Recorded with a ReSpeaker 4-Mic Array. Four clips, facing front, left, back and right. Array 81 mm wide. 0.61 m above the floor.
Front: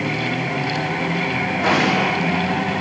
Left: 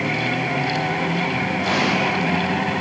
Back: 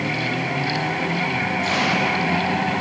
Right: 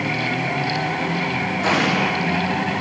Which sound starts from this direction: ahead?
An explosion, at 1.6 s.